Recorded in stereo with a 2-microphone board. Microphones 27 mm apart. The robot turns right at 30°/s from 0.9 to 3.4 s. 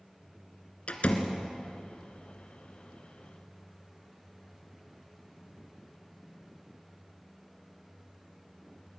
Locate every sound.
0.9 s a door slam: 50° left (ahead or behind), 2 m; by 1.4 s 55° left (ahead or behind), 2 m